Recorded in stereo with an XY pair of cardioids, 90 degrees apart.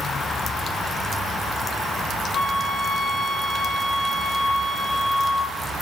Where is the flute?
55° left, 4 m.